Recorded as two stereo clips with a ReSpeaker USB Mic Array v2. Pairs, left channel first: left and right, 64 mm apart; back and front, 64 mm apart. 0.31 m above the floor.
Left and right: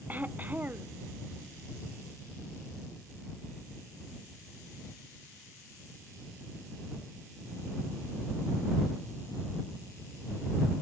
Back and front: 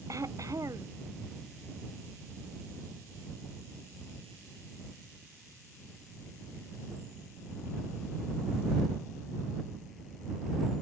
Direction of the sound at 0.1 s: 30° right.